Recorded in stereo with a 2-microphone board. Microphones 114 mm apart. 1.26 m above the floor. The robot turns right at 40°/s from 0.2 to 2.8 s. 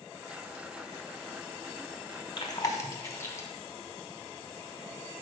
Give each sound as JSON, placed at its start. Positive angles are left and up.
{"t": 2.4, "sound": "chewing", "side_deg": 40, "distance_m": 1.0}